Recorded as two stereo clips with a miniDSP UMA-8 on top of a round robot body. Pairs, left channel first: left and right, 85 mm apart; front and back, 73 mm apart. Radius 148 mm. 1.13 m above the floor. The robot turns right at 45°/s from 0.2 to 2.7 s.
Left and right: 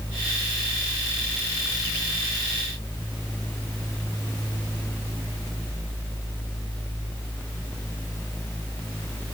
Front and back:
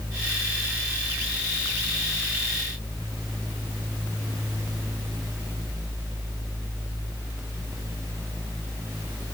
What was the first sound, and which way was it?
Only background noise.